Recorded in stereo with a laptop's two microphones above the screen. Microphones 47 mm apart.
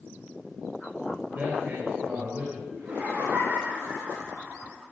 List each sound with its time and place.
1.4 s a man speaking: 50° right (ahead or behind), 3 m
2.7 s laughter: 35° right (ahead or behind), 3.5 m